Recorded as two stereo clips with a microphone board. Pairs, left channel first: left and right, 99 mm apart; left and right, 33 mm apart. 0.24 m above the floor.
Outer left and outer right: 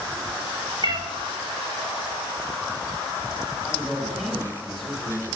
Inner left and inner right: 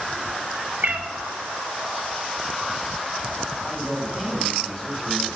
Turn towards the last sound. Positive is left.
turn(degrees=0)  # may be behind; listen again after turning